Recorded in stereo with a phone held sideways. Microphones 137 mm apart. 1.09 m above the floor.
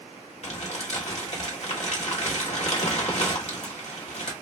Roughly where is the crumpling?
Left.